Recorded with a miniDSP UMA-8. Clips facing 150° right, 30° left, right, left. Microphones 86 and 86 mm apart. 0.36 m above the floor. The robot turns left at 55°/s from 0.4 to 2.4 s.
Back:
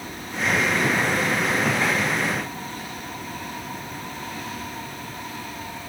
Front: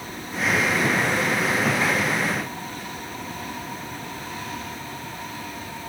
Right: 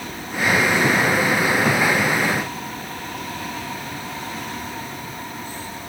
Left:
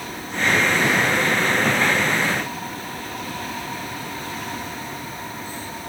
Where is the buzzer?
No buzzer in this recording.